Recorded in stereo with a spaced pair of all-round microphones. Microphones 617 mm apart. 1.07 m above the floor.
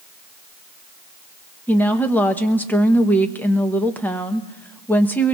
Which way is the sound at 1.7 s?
5° left (ahead or behind).